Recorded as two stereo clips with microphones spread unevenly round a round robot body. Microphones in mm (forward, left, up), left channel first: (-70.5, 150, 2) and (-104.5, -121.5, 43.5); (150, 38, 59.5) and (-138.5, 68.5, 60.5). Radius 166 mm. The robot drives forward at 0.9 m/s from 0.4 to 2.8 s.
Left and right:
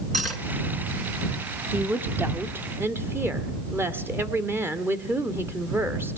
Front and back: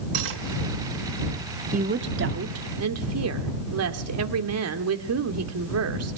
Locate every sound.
0.1 s cutlery clinking: 175° left, 4.5 m
1.7 s a woman speaking: 165° left, 1.2 m; by 6.2 s 175° left, 1.8 m